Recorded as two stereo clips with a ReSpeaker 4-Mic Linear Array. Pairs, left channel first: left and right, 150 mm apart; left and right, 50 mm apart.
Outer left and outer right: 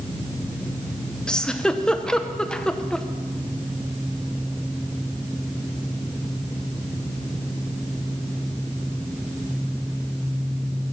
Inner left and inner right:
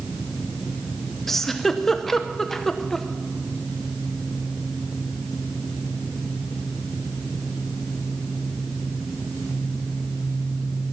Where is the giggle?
5° left (ahead or behind), 0.8 m.